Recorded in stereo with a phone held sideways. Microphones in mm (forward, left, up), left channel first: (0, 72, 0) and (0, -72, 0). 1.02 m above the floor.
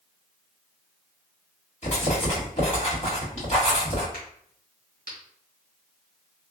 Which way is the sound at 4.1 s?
75° left (ahead or behind).